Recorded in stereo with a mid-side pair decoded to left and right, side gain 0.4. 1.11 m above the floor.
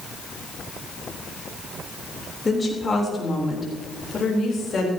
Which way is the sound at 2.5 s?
30° left.